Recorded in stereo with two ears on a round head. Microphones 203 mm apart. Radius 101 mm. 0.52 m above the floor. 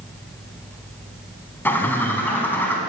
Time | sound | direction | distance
1.6 | a bird | 10° left (ahead or behind) | 0.9 m